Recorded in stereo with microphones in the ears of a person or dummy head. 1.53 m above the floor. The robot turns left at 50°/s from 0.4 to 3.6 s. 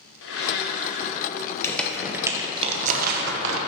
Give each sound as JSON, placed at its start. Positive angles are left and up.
{"t": 0.2, "sound": "a blender", "azimuth_deg": 75, "distance_m": 1.0}
{"t": 1.6, "sound": "crumpling", "side_deg": 15, "distance_m": 0.8}